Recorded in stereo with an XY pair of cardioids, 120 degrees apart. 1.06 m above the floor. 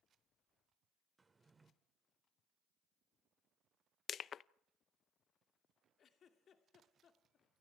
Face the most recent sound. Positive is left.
turn(degrees=45)